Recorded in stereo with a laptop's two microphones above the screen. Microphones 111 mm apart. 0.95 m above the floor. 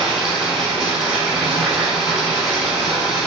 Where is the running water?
5° right (ahead or behind), 0.9 m.